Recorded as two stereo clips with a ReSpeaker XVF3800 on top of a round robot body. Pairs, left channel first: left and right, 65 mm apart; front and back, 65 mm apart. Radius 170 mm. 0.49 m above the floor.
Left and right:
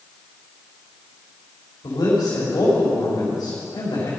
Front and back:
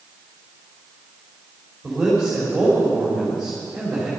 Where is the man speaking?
95° left, 3 m.